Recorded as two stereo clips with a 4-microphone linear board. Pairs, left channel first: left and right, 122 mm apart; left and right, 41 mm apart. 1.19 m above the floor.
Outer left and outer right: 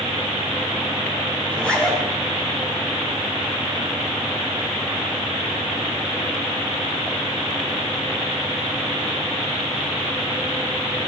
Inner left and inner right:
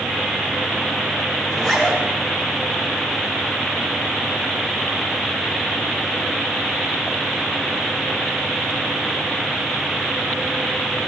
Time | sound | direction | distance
1.5 | a zipper | 10° left (ahead or behind) | 3 m